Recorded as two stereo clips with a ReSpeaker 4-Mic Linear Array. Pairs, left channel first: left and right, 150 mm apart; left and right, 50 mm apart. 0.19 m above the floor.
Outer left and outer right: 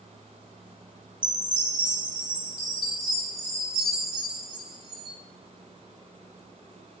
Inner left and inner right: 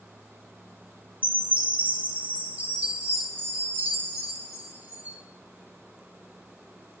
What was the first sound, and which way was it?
A chime, 30° right (ahead or behind).